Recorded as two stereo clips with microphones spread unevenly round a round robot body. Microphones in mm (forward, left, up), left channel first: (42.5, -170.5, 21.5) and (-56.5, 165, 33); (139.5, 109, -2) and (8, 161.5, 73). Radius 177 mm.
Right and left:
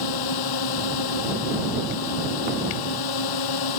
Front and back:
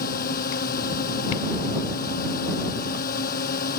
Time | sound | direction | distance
0.0 | a drone | 45° right | ?